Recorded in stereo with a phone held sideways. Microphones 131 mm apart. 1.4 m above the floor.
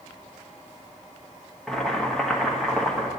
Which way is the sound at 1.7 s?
5° left (ahead or behind).